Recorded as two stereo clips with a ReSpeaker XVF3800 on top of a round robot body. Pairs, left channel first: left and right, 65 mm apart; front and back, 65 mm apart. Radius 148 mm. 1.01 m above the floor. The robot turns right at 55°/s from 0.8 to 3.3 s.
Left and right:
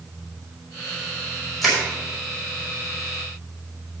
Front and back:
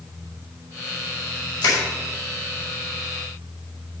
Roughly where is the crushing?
Ahead.